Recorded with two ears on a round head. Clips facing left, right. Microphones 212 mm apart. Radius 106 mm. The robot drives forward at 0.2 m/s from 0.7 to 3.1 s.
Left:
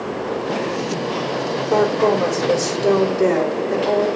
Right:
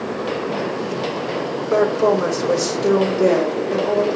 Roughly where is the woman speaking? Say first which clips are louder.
Even; centre.